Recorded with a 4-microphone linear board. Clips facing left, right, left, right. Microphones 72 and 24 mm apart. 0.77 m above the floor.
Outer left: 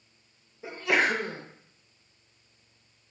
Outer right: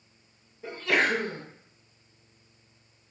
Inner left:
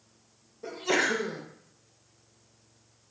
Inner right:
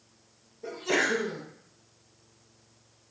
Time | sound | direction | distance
0.6 | a sneeze | 10° left (ahead or behind) | 0.6 m